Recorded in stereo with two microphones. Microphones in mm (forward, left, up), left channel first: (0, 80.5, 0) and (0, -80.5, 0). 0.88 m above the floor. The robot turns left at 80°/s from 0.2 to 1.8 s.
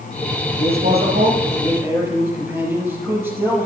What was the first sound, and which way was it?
A man speaking, 65° right.